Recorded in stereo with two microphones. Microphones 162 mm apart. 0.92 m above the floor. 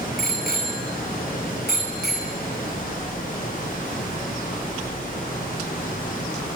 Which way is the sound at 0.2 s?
70° left (ahead or behind).